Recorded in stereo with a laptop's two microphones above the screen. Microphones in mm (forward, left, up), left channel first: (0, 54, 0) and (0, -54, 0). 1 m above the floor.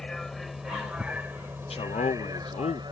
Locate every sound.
0.0 s a vehicle: 5° left (ahead or behind); by 2.9 s 45° right (ahead or behind)
1.7 s a man speaking: 70° left (ahead or behind)